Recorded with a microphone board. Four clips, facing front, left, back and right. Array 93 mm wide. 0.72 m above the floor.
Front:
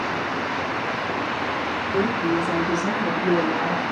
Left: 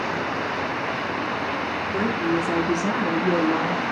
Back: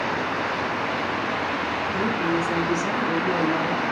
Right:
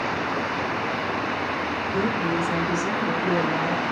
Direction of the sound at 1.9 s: 60° left.